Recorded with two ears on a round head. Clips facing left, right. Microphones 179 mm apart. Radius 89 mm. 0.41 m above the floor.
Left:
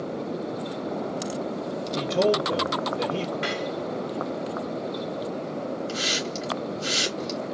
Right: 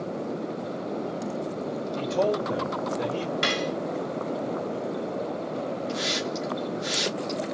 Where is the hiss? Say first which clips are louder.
Right 1 dB; 35° left (ahead or behind), 2 m.